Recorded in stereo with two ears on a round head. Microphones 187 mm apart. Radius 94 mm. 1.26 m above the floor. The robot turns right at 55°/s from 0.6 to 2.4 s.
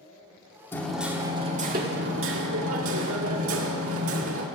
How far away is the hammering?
About 2.0 m.